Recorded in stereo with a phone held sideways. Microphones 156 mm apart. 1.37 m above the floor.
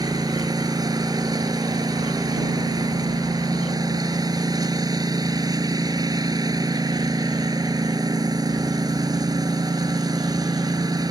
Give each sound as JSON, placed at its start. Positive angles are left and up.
{"t": 0.0, "sound": "a lawn mower", "side_deg": -25}